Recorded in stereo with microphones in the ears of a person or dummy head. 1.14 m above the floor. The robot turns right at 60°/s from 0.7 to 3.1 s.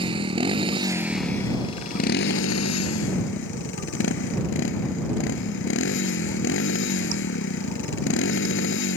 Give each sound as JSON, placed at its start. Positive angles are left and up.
{"t": 0.0, "sound": "a motorcycle", "azimuth_deg": -30}